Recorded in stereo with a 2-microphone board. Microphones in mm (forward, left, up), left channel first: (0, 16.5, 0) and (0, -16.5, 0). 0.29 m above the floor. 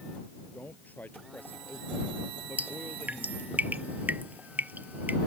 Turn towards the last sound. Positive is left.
turn(degrees=-60)  # may be behind; listen again after turning